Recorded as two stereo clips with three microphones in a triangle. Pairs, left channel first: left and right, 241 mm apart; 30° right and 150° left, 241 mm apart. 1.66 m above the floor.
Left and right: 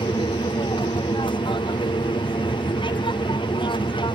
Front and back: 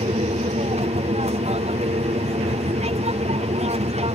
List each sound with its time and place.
0.0 s an aircraft: 135° left